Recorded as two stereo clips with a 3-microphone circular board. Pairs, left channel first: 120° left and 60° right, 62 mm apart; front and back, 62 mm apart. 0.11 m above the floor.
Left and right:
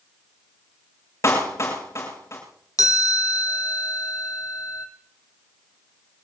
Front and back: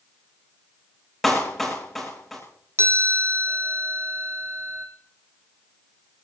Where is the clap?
85° left, 8.5 m.